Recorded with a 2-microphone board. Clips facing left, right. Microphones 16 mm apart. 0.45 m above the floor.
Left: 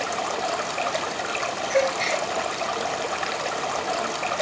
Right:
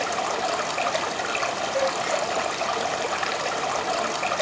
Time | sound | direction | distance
0.0 | running water | 5° right (ahead or behind) | 1.7 m
1.7 | a gasp | 85° left | 5 m